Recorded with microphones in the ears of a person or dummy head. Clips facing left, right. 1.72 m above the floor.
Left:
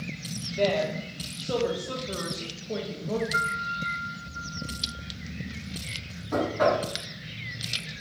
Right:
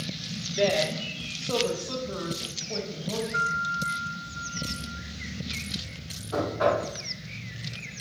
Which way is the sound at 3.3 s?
65° left (ahead or behind).